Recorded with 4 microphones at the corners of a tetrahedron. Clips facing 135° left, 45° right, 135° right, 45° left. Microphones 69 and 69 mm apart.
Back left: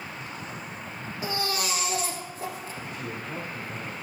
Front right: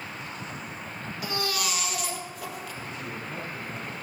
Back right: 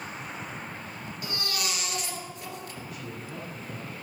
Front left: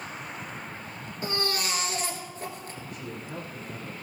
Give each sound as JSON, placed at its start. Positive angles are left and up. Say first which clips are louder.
{"t": 1.2, "sound": "a baby crying", "louder": "back left 1 dB, front left 4 dB", "azimuth_deg": 90, "distance_m": 2.0}
{"t": 2.8, "sound": "a man speaking", "louder": "back left 1 dB, front left 1 dB", "azimuth_deg": 130, "distance_m": 4.0}